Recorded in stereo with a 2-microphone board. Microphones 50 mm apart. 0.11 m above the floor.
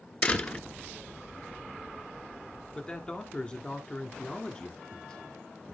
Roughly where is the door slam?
Left.